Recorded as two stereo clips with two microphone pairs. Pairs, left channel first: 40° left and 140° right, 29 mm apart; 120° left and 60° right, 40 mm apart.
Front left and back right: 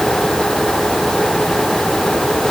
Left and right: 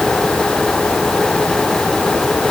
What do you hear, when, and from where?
Only background noise.